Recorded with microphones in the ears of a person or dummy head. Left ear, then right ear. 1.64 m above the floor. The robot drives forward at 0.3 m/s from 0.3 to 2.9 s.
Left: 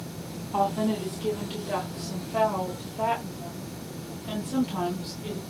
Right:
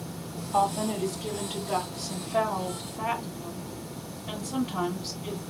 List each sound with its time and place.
0.5 s a woman speaking: centre (ahead or behind), 0.6 m